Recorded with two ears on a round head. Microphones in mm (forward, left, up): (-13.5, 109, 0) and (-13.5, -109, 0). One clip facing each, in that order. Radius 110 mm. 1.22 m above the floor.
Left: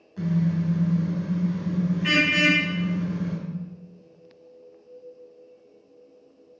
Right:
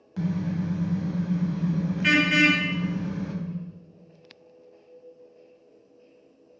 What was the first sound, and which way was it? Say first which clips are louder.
A car horn: left 3 dB; 70° right (ahead or behind).